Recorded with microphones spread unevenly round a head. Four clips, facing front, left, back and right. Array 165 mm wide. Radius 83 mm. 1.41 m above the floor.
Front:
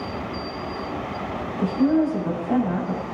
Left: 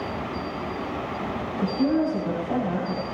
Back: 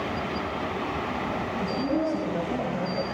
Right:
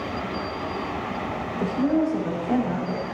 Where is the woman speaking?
60° right, 10 m.